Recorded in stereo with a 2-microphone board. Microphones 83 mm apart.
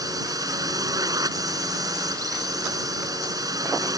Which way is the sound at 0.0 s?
45° right (ahead or behind).